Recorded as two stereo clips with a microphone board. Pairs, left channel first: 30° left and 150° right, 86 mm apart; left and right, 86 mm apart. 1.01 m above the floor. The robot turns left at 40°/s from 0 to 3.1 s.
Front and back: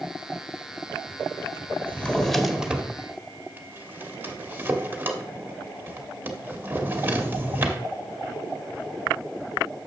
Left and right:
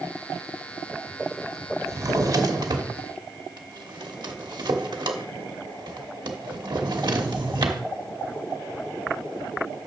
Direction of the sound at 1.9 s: 40° right.